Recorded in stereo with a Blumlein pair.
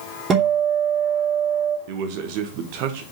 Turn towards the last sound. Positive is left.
turn(degrees=-45)